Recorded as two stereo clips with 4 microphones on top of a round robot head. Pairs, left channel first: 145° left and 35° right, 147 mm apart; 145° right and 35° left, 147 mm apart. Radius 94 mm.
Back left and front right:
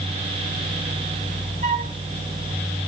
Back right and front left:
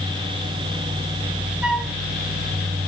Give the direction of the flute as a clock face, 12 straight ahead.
2 o'clock.